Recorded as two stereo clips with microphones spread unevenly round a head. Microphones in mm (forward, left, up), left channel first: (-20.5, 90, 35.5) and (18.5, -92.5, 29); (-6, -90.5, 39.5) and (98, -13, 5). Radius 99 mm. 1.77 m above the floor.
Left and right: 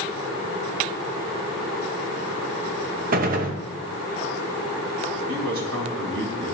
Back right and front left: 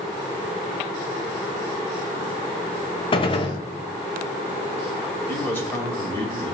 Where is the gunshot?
120° right, 0.8 m.